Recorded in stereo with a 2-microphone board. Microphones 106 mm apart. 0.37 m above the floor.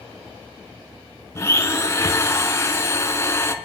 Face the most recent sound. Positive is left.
turn(degrees=25)  # may be behind; listen again after turning